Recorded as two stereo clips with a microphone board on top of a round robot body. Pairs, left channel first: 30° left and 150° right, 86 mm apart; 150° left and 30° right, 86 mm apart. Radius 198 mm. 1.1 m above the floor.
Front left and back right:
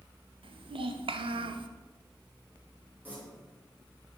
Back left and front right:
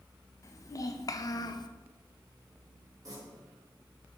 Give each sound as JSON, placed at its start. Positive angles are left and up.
{"t": 0.4, "sound": "a child speaking", "azimuth_deg": -155, "distance_m": 1.2}
{"t": 3.0, "sound": "tearing paper", "azimuth_deg": -80, "distance_m": 3.5}